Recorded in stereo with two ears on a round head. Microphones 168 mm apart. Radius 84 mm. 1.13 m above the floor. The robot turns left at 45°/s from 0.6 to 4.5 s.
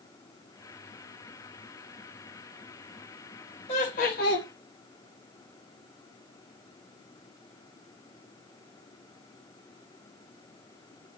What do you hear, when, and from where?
3.7 s laughter: 140° left, 1.5 m; by 4.5 s 105° left, 1.5 m